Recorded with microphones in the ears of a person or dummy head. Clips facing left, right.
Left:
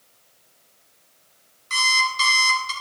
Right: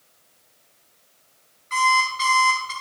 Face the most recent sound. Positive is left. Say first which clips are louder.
# right 5 dB
turn(degrees=65)  # may be behind; listen again after turning